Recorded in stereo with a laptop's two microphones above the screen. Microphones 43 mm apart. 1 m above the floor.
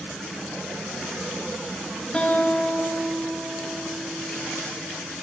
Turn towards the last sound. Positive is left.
turn(degrees=15)  # may be behind; listen again after turning